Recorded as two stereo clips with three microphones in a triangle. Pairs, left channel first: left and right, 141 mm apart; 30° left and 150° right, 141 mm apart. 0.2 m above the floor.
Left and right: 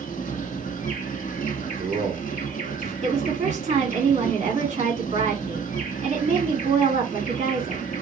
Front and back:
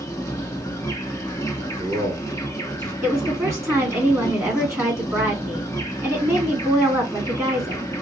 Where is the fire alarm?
No fire alarm in this recording.